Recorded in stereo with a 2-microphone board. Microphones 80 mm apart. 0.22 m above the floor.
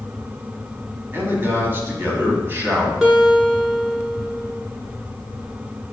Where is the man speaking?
30° right (ahead or behind), 1.5 m.